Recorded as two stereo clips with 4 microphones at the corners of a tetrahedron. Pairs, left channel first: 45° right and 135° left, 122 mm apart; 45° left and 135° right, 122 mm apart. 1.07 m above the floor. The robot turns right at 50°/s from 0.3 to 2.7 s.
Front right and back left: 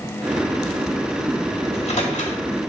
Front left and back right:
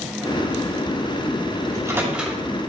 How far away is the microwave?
About 2 m.